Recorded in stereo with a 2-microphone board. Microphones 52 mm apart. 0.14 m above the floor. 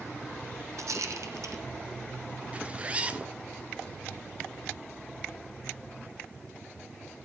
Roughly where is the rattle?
Right.